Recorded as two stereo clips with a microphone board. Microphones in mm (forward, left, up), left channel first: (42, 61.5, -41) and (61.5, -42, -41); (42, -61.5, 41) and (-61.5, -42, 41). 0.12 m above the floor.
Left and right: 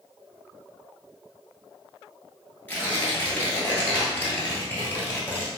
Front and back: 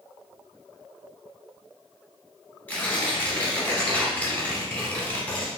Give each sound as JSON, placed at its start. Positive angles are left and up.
{"t": 2.7, "sound": "tearing paper", "azimuth_deg": 50, "distance_m": 1.3}